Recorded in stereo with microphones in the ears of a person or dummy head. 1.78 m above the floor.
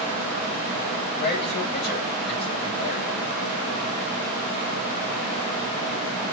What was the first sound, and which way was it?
A man speaking, 50° left (ahead or behind).